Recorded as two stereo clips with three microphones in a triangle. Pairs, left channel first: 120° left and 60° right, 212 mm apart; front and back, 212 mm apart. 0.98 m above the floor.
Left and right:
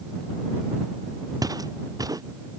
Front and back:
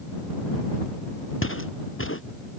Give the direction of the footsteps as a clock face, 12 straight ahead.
12 o'clock.